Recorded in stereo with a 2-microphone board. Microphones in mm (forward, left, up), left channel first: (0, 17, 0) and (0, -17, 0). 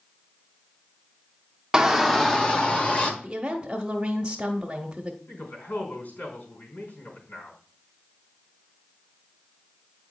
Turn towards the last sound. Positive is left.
turn(degrees=55)  # may be behind; listen again after turning